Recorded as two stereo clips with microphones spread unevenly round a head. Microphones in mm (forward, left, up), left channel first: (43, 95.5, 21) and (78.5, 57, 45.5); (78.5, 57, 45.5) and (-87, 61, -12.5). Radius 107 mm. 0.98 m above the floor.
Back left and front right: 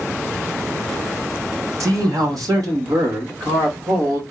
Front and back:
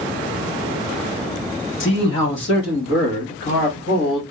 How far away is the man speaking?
About 1.3 m.